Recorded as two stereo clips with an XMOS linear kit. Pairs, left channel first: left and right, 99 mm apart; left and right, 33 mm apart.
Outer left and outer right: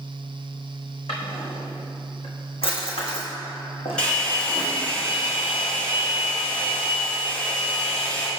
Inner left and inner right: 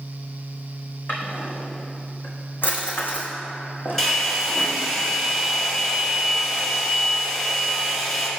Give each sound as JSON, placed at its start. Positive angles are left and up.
{"t": 1.1, "sound": "a drawer", "side_deg": 75, "distance_m": 1.7}
{"t": 4.0, "sound": "a hair dryer", "side_deg": 10, "distance_m": 1.7}